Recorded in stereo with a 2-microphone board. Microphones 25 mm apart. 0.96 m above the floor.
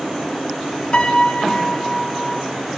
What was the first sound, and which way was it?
A piano, 40° left (ahead or behind).